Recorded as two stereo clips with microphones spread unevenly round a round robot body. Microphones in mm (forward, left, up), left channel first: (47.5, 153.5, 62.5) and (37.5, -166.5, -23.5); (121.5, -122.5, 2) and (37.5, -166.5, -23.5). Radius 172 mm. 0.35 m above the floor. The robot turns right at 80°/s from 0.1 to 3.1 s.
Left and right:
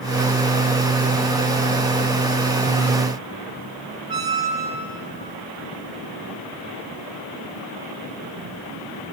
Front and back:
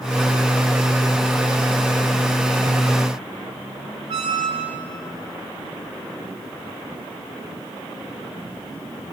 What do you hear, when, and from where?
4.1 s a squeak: 170° right, 0.9 m